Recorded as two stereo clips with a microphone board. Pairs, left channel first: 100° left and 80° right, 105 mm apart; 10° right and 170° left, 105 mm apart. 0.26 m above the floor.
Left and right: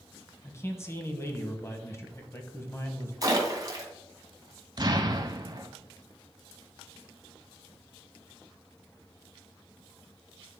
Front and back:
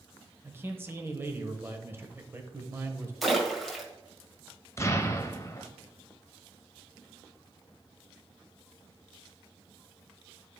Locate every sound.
0.4 s a man speaking: 130° left, 1.0 m
3.2 s a splash: 105° right, 1.6 m
4.8 s an explosion: 65° right, 0.8 m